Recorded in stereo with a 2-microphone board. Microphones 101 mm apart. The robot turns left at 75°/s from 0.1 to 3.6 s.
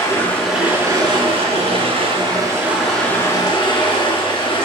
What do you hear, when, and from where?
0.0 s running water: 30° left, 3 m; by 4.7 s 130° left, 3 m